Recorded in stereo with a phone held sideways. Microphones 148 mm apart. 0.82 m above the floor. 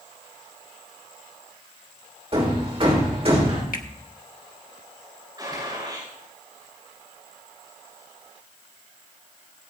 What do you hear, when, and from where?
2.3 s hammering: 40° right (ahead or behind), 3 m
3.7 s a finger snap: 70° left (ahead or behind), 1.1 m
5.4 s a gunshot: 30° right (ahead or behind), 8 m